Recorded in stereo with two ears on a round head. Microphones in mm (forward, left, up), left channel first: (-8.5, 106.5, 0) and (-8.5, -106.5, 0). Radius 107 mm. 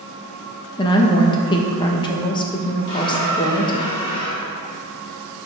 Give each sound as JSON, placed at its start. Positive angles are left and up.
{"t": 0.8, "sound": "a woman speaking", "side_deg": 20, "distance_m": 0.6}
{"t": 2.9, "sound": "a squeak", "side_deg": 20, "distance_m": 1.6}